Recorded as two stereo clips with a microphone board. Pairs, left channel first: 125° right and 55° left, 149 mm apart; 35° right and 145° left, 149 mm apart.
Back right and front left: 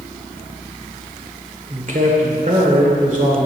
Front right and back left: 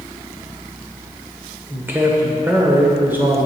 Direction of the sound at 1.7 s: 70° left.